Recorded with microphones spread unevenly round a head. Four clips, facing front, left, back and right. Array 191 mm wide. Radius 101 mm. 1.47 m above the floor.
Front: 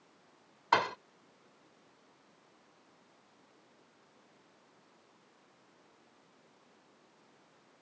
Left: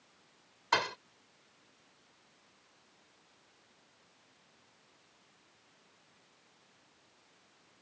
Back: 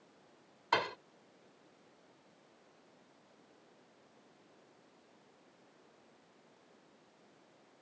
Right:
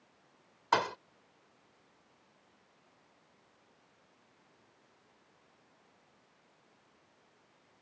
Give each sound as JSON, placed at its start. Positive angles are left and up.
{"t": 0.7, "sound": "a thud", "azimuth_deg": -20}